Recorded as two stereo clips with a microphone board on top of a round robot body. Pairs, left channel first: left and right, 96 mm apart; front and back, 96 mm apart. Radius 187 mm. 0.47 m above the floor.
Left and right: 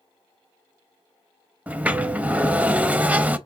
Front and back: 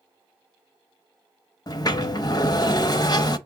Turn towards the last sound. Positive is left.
turn(degrees=-20)